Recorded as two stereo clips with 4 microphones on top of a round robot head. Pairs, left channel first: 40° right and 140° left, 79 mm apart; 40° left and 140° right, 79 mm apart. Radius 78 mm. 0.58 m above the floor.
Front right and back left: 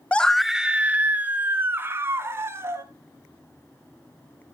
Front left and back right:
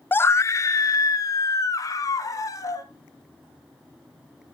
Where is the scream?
15° left, 0.6 m; by 2.8 s 85° left, 2.5 m.